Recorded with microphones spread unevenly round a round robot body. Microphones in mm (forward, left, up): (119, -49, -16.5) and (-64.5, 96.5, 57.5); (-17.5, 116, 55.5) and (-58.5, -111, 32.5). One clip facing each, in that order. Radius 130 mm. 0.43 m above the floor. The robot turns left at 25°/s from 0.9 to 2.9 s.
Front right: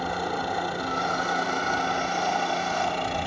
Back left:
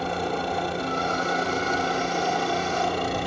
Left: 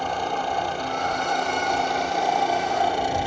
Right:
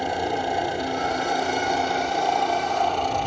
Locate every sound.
0.0 s a helicopter: 150° right; by 3.3 s 160° left